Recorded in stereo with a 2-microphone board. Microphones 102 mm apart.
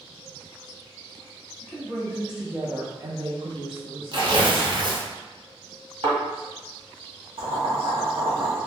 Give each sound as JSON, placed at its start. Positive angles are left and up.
{"t": 1.6, "sound": "a woman speaking", "side_deg": 0, "distance_m": 1.5}
{"t": 4.1, "sound": "tearing paper", "side_deg": -50, "distance_m": 0.6}
{"t": 6.0, "sound": "a thud", "side_deg": -70, "distance_m": 1.5}
{"t": 7.4, "sound": "boiling", "side_deg": -60, "distance_m": 1.1}